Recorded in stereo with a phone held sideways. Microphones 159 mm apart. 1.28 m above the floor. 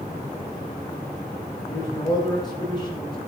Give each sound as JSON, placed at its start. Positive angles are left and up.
{"t": 1.6, "sound": "a man speaking", "side_deg": 25, "distance_m": 5.5}